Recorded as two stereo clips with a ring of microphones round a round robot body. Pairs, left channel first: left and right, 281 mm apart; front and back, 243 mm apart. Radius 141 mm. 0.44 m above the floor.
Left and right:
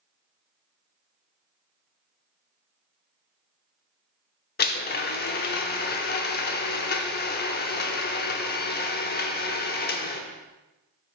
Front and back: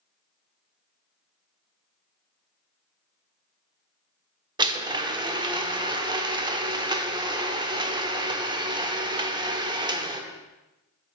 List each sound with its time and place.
4.6 s a blender: 120° left, 0.8 m